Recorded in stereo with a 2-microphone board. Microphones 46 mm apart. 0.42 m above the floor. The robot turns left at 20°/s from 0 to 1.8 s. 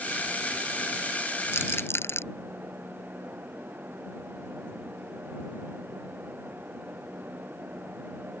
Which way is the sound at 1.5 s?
75° left (ahead or behind).